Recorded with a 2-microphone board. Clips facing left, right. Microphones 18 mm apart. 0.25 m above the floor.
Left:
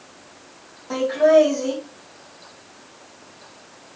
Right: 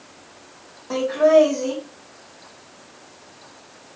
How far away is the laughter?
About 2.0 m.